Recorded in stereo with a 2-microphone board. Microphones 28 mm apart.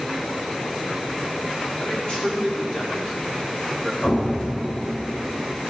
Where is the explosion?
50° left (ahead or behind), 4 m.